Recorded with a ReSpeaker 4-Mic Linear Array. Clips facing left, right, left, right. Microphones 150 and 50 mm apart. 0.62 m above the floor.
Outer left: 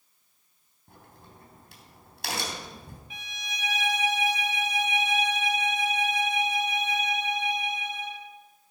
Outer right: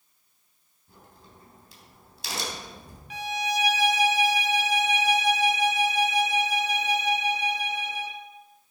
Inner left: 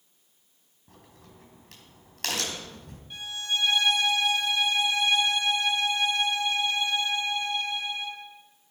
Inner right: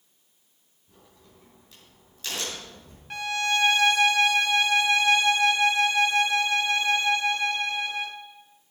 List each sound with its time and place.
0.9 s a crack: 65° left (ahead or behind), 3.5 m
3.1 s a violin: 75° right (ahead or behind), 1.1 m